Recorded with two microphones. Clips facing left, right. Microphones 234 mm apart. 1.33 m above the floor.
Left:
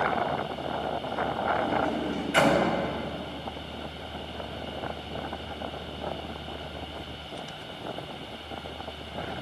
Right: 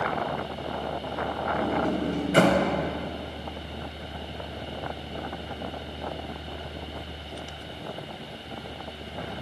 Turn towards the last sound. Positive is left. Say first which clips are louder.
# right 4 dB
turn(degrees=-45)  # may be behind; listen again after turning